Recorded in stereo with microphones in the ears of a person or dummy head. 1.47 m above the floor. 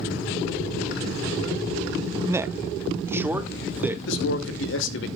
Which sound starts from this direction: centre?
A man speaking, at 2.3 s.